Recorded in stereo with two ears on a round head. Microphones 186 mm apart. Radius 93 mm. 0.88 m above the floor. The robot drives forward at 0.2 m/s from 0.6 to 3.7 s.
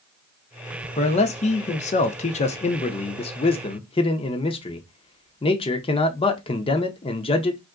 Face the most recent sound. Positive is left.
turn(degrees=25)  # may be behind; listen again after turning